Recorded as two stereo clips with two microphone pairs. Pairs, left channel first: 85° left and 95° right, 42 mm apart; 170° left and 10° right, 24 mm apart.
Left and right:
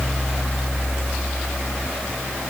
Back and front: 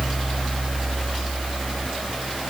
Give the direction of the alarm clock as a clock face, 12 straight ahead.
I don't hear an alarm clock.